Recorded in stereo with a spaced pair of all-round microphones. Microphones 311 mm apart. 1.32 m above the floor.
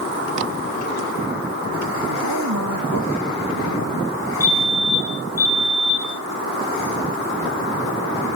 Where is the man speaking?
75° right (ahead or behind), 2.5 m.